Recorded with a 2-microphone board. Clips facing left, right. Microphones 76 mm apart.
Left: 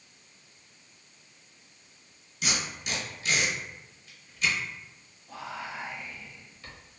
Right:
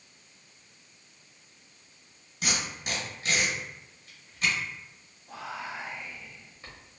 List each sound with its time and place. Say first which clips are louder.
2.4 s tape being pulled: even; 45° right (ahead or behind), 1.3 m
5.3 s whispering: even; 25° right (ahead or behind), 1.0 m